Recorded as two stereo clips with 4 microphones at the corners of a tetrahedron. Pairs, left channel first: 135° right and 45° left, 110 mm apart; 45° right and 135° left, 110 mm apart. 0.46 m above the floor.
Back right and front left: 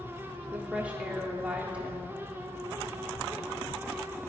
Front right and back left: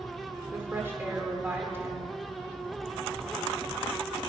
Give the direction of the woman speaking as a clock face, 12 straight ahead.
8 o'clock.